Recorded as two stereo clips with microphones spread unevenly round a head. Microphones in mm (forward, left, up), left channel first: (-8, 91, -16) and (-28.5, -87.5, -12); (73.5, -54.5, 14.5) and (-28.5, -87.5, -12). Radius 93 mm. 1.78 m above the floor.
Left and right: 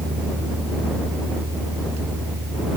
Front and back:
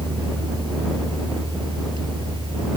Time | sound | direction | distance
0.0 | a fan | 120° right | ?